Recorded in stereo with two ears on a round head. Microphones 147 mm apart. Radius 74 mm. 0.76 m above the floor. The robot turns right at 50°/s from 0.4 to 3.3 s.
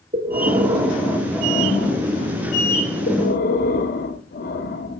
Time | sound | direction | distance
0.1 | breathing | 30° right | 1.3 m